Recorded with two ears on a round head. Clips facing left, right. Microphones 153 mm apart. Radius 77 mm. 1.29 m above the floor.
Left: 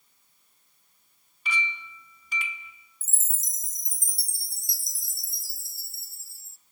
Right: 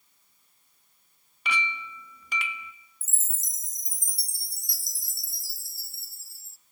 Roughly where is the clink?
Right.